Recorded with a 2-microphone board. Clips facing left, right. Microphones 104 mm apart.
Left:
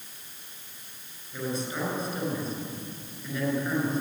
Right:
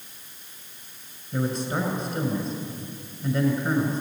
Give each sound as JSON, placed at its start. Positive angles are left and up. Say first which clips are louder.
{"t": 1.3, "sound": "a man speaking", "louder": "right 5 dB", "side_deg": -65, "distance_m": 6.5}